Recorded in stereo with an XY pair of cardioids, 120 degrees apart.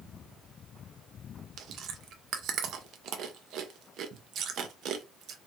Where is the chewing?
65° right, 0.6 m.